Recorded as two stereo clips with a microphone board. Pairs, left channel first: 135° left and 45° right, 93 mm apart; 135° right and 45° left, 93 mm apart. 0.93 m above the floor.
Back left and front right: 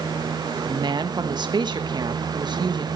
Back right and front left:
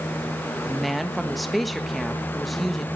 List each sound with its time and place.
0.6 s a woman speaking: 45° right, 1.3 m